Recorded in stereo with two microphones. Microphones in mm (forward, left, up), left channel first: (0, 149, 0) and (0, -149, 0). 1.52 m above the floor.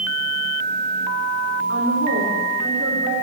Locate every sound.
1.7 s a woman speaking: 60° right (ahead or behind), 6 m